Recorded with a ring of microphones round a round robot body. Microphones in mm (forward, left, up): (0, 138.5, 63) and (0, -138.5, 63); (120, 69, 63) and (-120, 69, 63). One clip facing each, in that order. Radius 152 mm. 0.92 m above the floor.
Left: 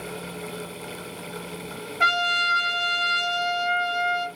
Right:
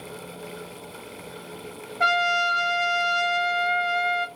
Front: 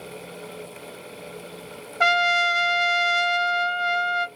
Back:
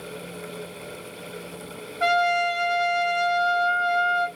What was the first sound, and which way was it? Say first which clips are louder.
A trumpet: right 8 dB, back 2 dB; 15° left.